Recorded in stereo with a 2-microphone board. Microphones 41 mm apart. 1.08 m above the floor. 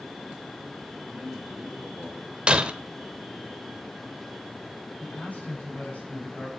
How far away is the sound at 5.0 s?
About 7.5 m.